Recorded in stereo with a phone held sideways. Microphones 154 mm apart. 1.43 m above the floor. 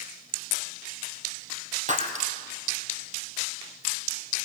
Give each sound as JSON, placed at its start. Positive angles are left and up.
{"t": 1.9, "sound": "breaking glass", "side_deg": -50, "distance_m": 2.5}